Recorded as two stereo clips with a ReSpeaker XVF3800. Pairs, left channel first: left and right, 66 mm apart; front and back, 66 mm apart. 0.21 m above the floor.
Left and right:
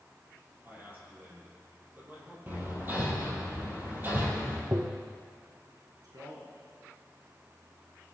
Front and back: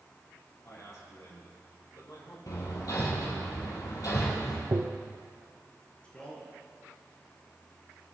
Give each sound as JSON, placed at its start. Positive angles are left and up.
{"t": 0.6, "sound": "a man speaking", "azimuth_deg": -30, "distance_m": 5.0}
{"t": 2.5, "sound": "hammering", "azimuth_deg": -30, "distance_m": 3.5}
{"t": 4.7, "sound": "tapping", "azimuth_deg": -135, "distance_m": 1.0}
{"t": 6.0, "sound": "a man speaking", "azimuth_deg": -75, "distance_m": 4.5}